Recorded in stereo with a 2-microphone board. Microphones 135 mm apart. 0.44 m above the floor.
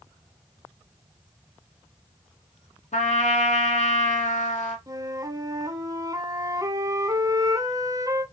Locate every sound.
2.9 s a trumpet: 65° left (ahead or behind), 1.4 m
4.9 s a flute: 25° right (ahead or behind), 0.6 m